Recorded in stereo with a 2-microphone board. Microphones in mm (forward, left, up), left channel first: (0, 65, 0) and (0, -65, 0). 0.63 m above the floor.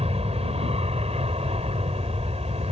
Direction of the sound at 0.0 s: 50° right (ahead or behind).